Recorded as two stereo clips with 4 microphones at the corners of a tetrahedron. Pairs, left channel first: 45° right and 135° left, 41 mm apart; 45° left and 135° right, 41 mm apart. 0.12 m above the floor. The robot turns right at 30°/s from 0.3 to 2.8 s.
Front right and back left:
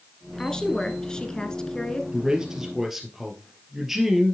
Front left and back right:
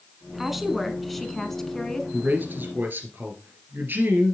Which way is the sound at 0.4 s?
60° right.